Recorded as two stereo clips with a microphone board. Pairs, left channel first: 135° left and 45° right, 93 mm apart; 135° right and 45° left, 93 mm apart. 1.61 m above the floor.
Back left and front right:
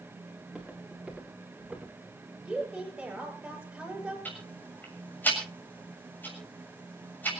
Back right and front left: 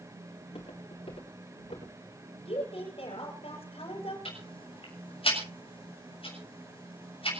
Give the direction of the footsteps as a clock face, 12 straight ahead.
4 o'clock.